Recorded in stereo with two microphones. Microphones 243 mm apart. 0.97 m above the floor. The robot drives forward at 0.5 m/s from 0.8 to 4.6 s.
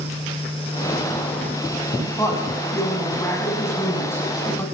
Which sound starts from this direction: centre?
A woman speaking, at 2.2 s.